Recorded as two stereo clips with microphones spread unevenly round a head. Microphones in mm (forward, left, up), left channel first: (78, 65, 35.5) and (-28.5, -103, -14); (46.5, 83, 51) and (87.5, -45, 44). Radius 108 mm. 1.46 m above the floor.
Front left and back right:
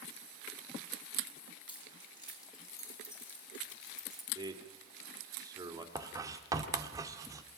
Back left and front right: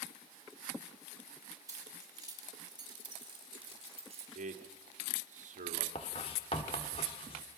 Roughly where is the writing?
Behind left.